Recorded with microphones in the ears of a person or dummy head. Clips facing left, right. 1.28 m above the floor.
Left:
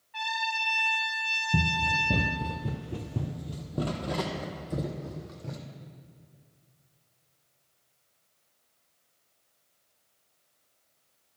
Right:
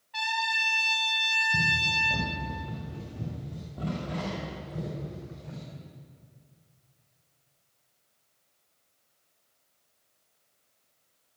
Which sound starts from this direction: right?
A trumpet, at 0.1 s.